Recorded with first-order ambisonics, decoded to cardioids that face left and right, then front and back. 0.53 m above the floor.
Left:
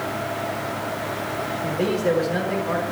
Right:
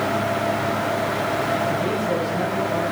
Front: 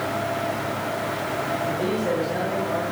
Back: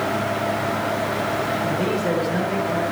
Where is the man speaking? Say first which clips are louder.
Even, back 2 dB; 105° left, 5.5 m.